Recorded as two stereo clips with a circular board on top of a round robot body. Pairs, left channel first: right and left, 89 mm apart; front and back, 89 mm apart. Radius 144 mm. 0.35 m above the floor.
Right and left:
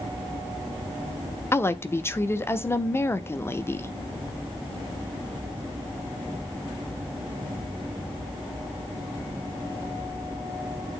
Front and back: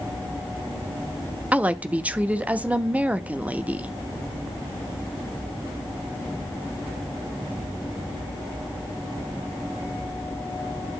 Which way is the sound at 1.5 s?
120° right.